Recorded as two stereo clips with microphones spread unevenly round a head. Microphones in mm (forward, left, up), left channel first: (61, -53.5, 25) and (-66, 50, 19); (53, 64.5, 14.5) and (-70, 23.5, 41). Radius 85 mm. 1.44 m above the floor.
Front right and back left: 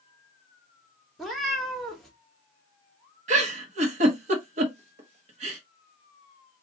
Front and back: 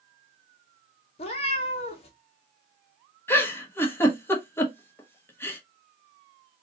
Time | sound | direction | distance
1.2 | a cat meowing | 50° left | 1.1 m
3.3 | a giggle | 95° left | 1.3 m